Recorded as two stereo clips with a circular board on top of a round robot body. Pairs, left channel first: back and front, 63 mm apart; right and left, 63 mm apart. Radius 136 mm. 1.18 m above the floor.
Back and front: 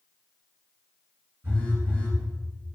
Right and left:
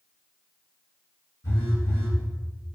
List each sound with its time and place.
1.4 s a phone buzzing: 55° right, 2.5 m